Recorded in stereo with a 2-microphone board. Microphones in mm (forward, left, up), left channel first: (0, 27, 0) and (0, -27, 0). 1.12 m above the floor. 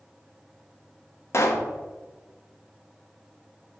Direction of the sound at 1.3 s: 55° left (ahead or behind).